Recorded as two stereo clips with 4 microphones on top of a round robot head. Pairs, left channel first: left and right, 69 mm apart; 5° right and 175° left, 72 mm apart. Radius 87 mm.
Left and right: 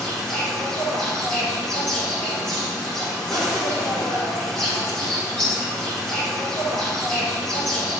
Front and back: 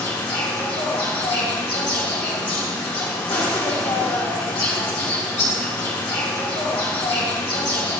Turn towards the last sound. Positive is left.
turn(degrees=10)